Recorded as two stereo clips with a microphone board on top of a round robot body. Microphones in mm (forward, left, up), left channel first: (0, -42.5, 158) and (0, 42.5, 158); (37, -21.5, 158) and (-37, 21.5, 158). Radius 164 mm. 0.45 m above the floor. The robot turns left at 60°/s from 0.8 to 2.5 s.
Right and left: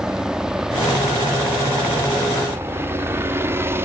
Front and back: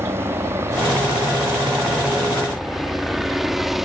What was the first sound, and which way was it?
A helicopter, 165° left.